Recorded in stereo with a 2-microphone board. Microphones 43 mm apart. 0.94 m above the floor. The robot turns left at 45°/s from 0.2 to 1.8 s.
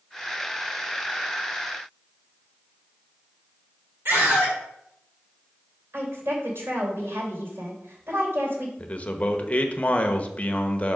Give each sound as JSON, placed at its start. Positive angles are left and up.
{"t": 4.0, "sound": "a scream", "side_deg": -60, "distance_m": 2.5}
{"t": 5.9, "sound": "a woman speaking", "side_deg": -80, "distance_m": 3.5}
{"t": 8.8, "sound": "a man speaking", "side_deg": 35, "distance_m": 1.0}